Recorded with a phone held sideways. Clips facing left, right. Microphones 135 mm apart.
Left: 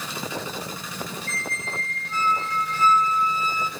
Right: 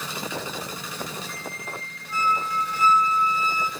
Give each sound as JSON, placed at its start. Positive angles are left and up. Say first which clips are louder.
{"t": 1.3, "sound": "a squeak", "louder": "left 2 dB", "side_deg": -10, "distance_m": 3.0}